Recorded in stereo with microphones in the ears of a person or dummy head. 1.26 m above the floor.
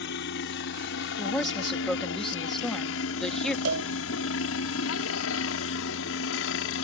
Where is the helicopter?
55° left (ahead or behind); by 6.8 s 65° left (ahead or behind).